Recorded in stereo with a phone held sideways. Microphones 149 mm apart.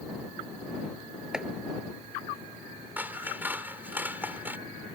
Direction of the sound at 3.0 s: 10° right (ahead or behind).